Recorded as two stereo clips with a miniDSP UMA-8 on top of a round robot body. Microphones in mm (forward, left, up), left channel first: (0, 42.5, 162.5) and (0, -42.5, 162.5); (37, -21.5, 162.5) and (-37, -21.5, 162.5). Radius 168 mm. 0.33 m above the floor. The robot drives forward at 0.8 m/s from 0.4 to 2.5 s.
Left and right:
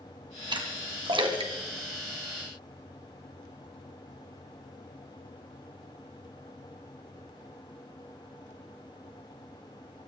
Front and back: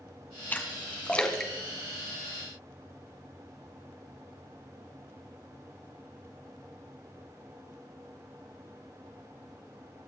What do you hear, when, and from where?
0.5 s a splash: 65° right, 2.5 m; by 2.5 s 100° right, 2.5 m